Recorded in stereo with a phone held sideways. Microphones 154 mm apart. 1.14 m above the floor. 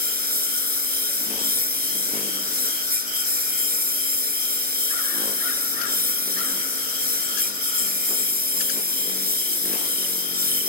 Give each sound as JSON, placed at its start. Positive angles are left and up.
{"t": 0.0, "sound": "a lawn mower", "side_deg": -75}